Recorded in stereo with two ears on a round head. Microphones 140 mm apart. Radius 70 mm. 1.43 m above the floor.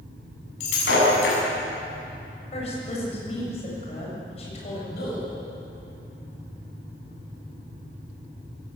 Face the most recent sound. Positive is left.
turn(degrees=75)  # may be behind; listen again after turning